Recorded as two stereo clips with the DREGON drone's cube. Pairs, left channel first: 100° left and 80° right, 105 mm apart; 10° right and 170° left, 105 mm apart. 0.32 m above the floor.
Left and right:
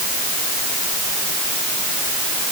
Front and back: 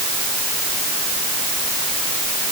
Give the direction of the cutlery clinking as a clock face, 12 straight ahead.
No cutlery clinking in this recording.